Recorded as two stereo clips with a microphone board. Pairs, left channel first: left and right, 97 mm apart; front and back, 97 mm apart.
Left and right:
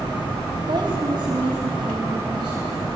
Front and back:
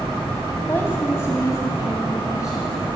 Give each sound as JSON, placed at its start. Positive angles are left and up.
{"t": 0.7, "sound": "a woman speaking", "azimuth_deg": -65, "distance_m": 2.5}